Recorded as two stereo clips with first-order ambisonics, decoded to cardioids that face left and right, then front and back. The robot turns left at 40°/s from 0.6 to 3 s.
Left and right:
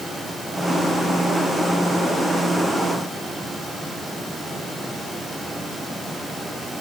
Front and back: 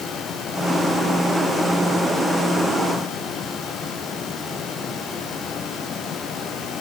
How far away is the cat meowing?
No cat meowing in this recording.